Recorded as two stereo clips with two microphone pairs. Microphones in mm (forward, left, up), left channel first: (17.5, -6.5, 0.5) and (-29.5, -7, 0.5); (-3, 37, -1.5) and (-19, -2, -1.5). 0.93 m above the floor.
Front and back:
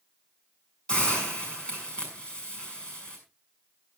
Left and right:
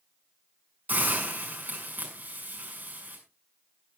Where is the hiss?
65° right, 6 m.